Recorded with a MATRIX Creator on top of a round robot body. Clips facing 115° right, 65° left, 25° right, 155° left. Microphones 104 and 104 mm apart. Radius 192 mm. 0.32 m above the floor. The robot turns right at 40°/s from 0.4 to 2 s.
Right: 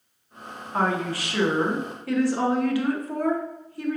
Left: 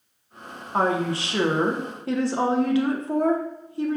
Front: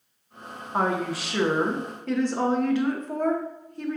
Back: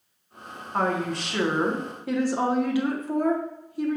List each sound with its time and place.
0.7 s a woman speaking: 40° left, 1.0 m; by 4.0 s 90° left, 1.0 m